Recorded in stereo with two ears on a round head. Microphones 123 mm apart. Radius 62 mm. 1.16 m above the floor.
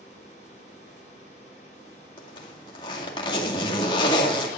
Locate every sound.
2.2 s a zipper: 35° left (ahead or behind), 2.0 m